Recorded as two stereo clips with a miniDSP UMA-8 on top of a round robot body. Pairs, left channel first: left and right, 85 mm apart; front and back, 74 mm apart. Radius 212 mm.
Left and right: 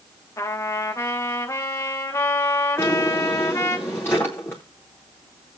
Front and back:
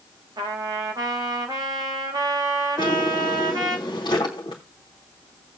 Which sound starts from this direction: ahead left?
A drawer, at 2.8 s.